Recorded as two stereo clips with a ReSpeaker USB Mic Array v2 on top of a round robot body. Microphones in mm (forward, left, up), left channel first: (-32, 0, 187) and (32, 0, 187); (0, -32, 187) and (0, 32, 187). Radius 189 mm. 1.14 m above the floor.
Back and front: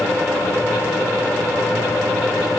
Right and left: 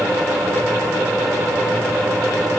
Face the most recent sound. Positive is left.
No sound to turn to.